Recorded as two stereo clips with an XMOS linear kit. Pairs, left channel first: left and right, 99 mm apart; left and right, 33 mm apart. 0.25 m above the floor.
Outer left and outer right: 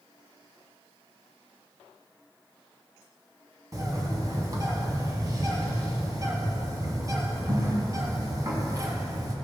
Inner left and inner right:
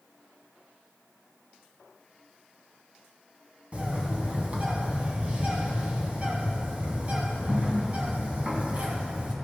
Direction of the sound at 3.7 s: 35° right (ahead or behind).